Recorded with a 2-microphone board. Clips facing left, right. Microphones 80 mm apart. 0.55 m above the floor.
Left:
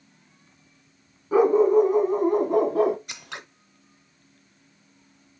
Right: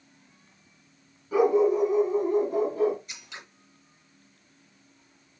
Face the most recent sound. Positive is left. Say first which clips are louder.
# left 6 dB
turn(degrees=65)  # may be behind; listen again after turning